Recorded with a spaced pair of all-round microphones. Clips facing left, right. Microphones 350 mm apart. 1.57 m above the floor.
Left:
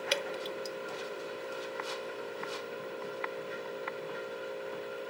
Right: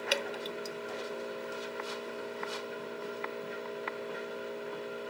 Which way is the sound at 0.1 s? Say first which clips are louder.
Even; 5° left (ahead or behind).